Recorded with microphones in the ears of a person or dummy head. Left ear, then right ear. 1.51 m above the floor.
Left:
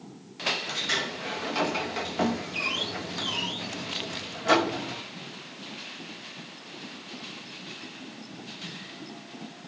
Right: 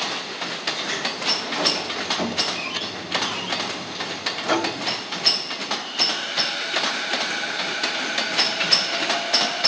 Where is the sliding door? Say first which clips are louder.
Right 3 dB; centre (ahead or behind), 0.6 m.